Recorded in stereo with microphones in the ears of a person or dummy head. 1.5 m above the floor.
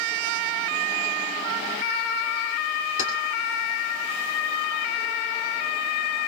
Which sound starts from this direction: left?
Keys jangling, at 3.0 s.